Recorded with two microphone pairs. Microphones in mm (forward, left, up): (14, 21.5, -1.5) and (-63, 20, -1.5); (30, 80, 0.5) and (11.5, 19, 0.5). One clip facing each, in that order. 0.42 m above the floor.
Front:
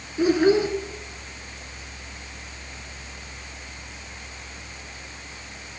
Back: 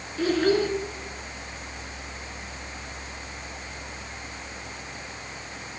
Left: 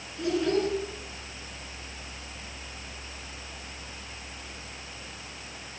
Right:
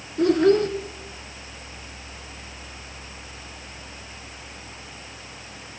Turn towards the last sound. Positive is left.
turn(degrees=-70)